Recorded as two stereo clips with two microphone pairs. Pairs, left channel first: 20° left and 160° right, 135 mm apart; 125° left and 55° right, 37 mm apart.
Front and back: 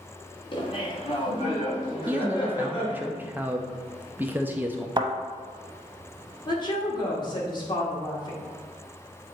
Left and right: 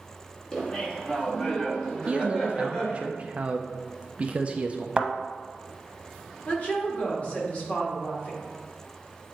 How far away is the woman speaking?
About 1.7 m.